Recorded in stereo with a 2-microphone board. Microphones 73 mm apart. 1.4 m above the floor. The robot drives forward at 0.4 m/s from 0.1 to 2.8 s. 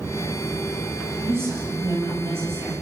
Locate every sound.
1.2 s a woman speaking: 35° right (ahead or behind), 9.5 m